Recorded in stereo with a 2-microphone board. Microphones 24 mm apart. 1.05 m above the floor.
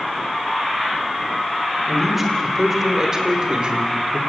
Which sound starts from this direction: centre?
A man speaking, at 1.9 s.